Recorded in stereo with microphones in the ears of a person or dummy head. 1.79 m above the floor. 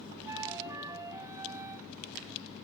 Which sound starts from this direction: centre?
A flute, at 0.2 s.